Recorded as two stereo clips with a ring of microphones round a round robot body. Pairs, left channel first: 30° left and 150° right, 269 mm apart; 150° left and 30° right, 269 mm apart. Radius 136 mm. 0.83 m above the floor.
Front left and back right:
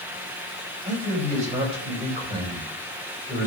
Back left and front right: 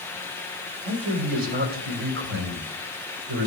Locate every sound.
0.8 s a man speaking: 90° right, 4.5 m; by 3.5 s 65° right, 3.5 m